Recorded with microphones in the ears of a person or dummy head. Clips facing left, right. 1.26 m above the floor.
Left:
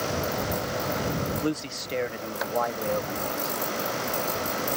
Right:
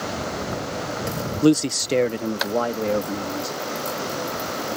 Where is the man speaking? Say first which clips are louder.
Right 12 dB; 50° right (ahead or behind); by 3.6 s 40° right (ahead or behind).